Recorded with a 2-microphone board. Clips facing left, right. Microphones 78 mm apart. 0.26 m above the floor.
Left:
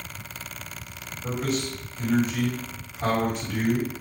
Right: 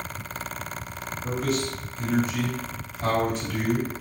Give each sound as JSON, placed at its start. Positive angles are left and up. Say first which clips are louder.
{"t": 1.2, "sound": "a man speaking", "louder": "right 1 dB", "side_deg": 25, "distance_m": 1.6}